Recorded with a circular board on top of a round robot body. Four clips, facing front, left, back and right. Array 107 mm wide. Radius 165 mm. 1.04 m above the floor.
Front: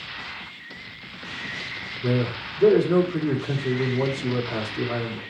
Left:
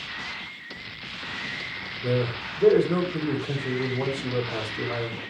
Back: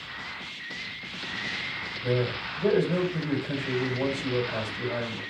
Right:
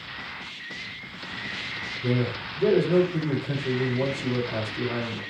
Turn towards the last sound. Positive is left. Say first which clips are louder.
# left 1 dB, front 3 dB
turn(degrees=5)